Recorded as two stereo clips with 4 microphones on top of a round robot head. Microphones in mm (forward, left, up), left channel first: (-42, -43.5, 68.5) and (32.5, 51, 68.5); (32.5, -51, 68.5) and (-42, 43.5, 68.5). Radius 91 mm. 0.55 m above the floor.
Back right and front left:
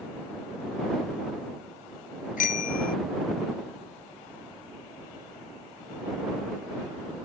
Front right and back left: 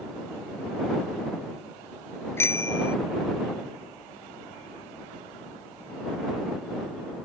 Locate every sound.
2.4 s a bicycle bell: 125° right